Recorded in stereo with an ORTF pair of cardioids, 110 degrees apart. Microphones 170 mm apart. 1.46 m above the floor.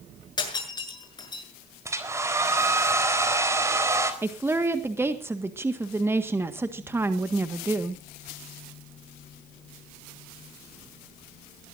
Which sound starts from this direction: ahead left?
Breaking glass, at 0.4 s.